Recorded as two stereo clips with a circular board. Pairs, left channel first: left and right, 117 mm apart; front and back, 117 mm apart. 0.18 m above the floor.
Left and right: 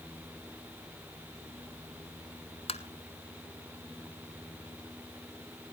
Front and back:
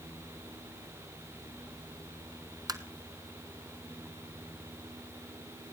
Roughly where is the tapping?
Behind left.